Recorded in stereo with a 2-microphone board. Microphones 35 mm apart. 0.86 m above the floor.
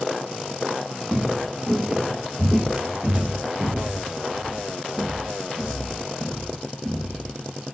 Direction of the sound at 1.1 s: 10° right (ahead or behind).